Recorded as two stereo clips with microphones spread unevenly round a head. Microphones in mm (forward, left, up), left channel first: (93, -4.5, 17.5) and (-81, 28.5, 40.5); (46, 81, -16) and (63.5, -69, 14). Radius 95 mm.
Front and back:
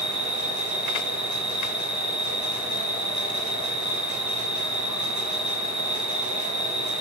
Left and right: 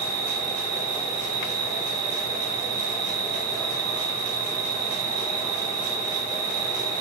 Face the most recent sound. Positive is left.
turn(degrees=-95)